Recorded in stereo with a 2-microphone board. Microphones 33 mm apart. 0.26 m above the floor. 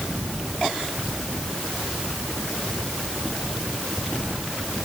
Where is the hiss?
I don't hear a hiss.